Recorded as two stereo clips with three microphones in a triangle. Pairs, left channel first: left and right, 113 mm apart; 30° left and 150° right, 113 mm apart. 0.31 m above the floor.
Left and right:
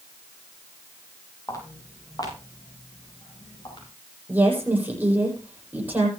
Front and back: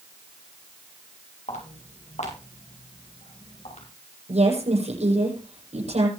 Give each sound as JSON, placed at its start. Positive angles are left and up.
{"t": 1.5, "sound": "footsteps", "azimuth_deg": 30, "distance_m": 6.0}
{"t": 4.3, "sound": "a woman speaking", "azimuth_deg": -165, "distance_m": 8.5}